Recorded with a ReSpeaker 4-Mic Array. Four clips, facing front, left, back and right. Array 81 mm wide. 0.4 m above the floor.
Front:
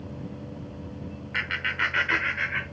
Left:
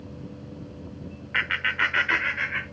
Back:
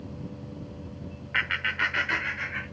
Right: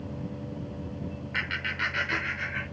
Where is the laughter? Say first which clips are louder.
Left 7 dB, back 1 dB; 120° left, 1.2 m; by 2.6 s 55° left, 1.7 m.